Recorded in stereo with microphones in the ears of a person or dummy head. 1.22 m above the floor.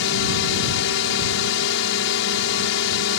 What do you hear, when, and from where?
0.0 s a drone: 65° left (ahead or behind)